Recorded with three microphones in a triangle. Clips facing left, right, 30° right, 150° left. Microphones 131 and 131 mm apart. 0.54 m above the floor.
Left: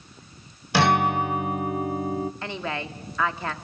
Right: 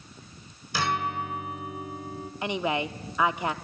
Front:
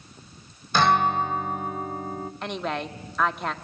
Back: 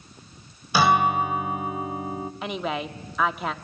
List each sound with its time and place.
0.7 s a guitar: 70° left, 0.7 m
2.4 s a woman speaking: 130° right, 0.8 m